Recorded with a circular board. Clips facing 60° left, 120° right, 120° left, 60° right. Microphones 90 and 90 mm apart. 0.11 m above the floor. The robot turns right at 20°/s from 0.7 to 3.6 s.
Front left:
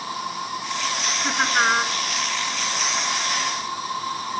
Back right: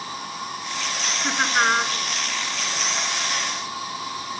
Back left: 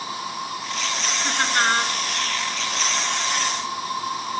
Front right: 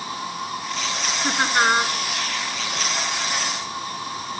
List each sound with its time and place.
0.0 s an insect: 55° left, 5 m; by 4.4 s 115° left, 5 m
1.2 s laughter: 35° right, 1.1 m; by 1.9 s 20° right, 1.1 m